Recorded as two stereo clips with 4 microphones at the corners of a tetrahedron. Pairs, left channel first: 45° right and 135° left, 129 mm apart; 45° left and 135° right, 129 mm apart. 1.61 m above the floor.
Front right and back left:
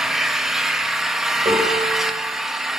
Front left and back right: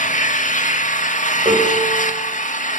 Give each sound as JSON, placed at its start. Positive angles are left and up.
{"t": 0.0, "sound": "an engine running", "azimuth_deg": 50, "distance_m": 1.9}
{"t": 1.4, "sound": "a piano", "azimuth_deg": 180, "distance_m": 8.5}